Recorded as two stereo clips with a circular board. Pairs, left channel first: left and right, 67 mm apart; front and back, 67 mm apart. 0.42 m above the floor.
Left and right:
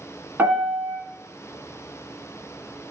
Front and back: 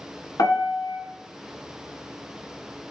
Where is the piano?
25° right, 1.1 m.